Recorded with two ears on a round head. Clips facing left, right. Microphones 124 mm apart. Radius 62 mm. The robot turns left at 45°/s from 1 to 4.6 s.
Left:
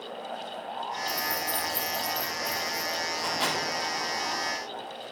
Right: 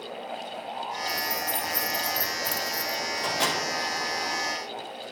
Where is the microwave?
40° right (ahead or behind), 2.5 m; by 3.6 s 60° right (ahead or behind), 2.5 m.